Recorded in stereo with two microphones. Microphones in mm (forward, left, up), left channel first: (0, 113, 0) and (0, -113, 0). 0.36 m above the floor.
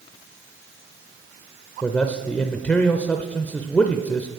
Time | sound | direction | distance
1.8 | a man speaking | 5° left (ahead or behind) | 0.9 m